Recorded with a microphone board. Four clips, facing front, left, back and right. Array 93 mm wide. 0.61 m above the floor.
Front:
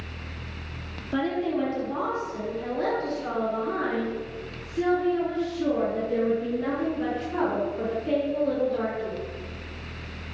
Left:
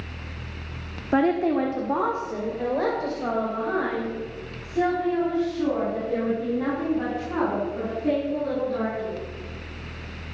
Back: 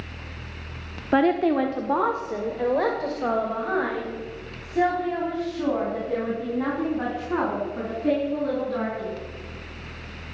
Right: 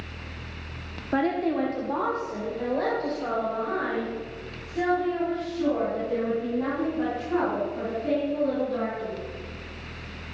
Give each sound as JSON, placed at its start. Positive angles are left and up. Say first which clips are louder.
{"t": 1.1, "sound": "a woman speaking", "louder": "left 4 dB, back 6 dB", "azimuth_deg": 165, "distance_m": 1.2}